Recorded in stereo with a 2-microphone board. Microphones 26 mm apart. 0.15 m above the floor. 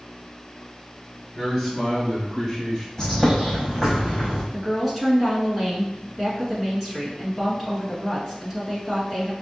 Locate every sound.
1.4 s a man speaking: 5° left (ahead or behind), 2.0 m; by 2.9 s 15° left (ahead or behind), 4 m
3.0 s a bird: 20° left (ahead or behind), 2.5 m
4.5 s a woman speaking: 10° right (ahead or behind), 2.0 m